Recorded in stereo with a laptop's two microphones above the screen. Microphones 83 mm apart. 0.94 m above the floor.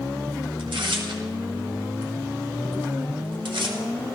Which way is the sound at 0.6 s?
80° right.